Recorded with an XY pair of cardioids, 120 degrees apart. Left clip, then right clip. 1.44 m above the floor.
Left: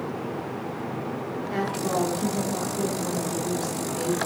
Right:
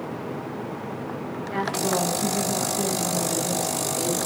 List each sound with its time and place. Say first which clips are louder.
1.5 s a woman speaking: right 2 dB; 20° right, 4.5 m; by 4.3 s 15° right, 6 m